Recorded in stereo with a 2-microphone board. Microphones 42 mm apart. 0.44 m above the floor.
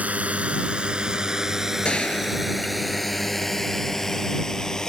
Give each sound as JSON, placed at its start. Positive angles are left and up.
{"t": 0.0, "sound": "a drone", "side_deg": -35}
{"t": 1.9, "sound": "a gunshot", "side_deg": 25}